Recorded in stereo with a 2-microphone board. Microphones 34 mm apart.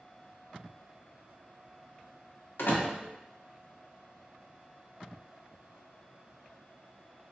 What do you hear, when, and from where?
2.6 s a door slam: 80° left, 0.8 m